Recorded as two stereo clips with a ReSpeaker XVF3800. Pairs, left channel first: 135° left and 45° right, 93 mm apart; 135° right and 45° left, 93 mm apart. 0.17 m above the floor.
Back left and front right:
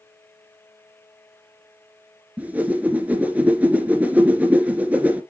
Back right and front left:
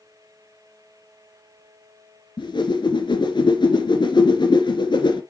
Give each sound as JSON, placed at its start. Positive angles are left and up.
{"t": 2.4, "sound": "a whoosh", "azimuth_deg": -115, "distance_m": 2.5}